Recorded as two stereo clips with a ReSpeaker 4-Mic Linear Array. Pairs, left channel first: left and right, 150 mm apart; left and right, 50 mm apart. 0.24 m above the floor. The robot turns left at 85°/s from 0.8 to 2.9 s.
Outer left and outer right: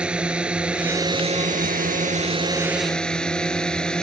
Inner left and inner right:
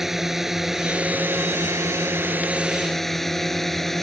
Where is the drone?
5° right; by 4.0 s 175° left.